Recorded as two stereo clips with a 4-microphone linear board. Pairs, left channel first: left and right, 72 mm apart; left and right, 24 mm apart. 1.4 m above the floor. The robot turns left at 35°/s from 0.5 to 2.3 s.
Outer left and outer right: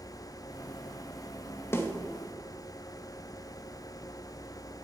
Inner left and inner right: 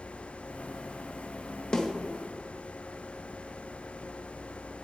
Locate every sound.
1.7 s a snare drum: 35° left (ahead or behind), 1.6 m; by 1.9 s 30° left (ahead or behind), 1.6 m